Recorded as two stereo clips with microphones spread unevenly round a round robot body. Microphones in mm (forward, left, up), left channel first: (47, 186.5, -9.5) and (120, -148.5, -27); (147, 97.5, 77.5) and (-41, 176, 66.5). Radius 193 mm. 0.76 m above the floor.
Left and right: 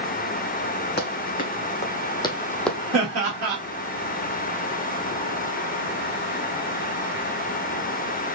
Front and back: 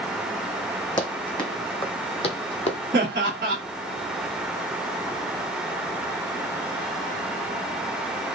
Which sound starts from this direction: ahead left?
Running footsteps, at 1.0 s.